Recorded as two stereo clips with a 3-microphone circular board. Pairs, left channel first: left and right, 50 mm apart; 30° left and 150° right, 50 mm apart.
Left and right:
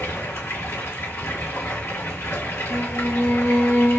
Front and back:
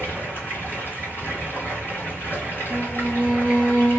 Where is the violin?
120° left, 2.5 m.